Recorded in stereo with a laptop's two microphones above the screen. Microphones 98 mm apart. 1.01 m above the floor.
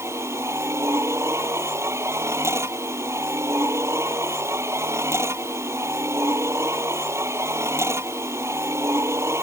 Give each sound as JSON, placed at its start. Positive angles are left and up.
{"t": 0.0, "sound": "a machine running", "side_deg": -25}